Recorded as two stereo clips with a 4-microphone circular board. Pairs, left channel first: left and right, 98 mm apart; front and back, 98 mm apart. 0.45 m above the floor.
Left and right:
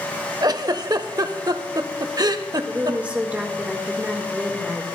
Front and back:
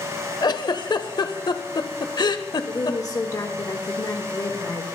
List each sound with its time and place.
0.4 s a giggle: 45° right, 0.6 m
2.7 s a woman speaking: 20° right, 1.3 m